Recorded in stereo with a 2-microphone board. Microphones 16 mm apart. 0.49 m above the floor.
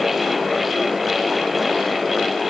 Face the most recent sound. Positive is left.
No sound to turn to.